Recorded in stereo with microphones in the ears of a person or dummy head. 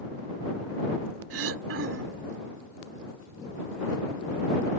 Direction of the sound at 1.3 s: 75° right (ahead or behind).